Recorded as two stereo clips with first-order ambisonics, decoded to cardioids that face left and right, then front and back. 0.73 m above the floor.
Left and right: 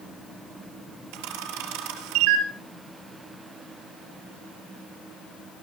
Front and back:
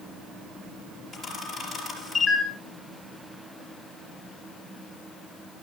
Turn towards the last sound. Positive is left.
turn(degrees=-85)